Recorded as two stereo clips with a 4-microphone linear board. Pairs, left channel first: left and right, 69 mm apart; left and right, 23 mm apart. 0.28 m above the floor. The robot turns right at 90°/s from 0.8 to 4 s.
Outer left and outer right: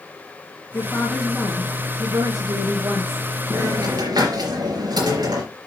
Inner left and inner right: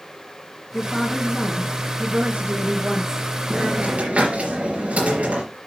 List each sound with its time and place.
0.7 s a woman speaking: 135° left, 2.0 m; by 3.3 s straight ahead, 2.0 m
3.5 s a hiss: 145° right, 4 m; by 5.4 s 100° right, 4 m